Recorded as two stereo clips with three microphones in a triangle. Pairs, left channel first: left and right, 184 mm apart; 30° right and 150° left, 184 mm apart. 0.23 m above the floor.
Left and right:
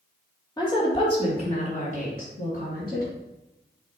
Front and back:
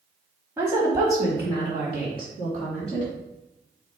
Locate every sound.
0.6 s a woman speaking: 95° left, 1.2 m